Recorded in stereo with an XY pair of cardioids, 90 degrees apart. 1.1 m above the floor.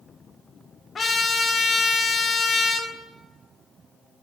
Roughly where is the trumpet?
Ahead left.